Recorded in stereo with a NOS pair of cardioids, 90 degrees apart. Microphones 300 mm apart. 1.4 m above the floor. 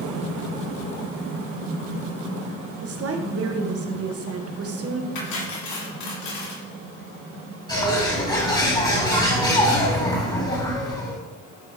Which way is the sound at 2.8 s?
45° right.